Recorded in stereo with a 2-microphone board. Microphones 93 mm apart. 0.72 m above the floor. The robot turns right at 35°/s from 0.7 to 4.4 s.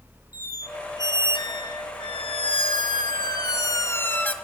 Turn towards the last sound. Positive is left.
turn(degrees=165)